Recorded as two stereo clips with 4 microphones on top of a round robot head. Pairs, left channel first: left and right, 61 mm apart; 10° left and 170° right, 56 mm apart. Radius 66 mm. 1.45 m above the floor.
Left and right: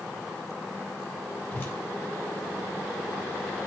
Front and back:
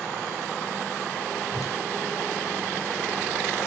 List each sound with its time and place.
1.5 s a whoosh: 30° left, 5 m